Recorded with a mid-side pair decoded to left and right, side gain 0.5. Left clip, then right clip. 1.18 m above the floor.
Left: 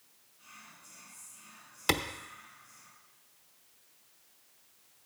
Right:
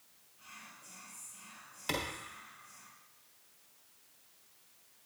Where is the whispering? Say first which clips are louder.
Right 1 dB; 50° right, 5 m.